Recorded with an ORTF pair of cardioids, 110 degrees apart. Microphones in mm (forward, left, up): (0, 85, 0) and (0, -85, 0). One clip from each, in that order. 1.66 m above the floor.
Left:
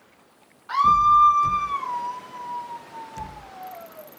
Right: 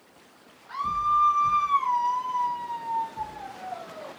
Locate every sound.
0.7 s a scream: 55° left, 0.6 m; by 4.1 s 60° right, 1.5 m